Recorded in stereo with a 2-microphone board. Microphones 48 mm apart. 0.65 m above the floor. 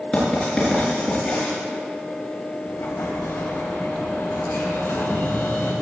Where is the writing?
25° left (ahead or behind), 5 m.